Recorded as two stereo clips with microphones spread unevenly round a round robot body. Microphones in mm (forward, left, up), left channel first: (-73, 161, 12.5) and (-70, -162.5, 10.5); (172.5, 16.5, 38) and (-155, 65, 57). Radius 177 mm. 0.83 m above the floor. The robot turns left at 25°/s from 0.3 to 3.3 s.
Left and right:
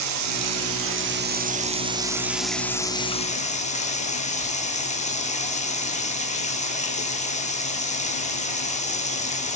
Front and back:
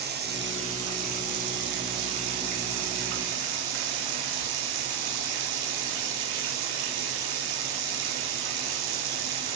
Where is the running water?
125° right, 1.7 m; by 9.6 s 160° left, 1.7 m.